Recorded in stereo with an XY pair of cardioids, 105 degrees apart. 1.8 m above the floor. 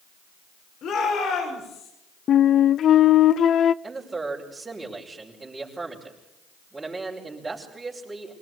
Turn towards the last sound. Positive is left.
turn(degrees=-20)